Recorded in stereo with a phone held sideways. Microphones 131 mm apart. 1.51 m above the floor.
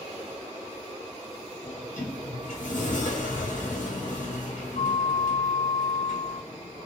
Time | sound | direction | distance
1.6 | a sliding door | 80° left | 1.5 m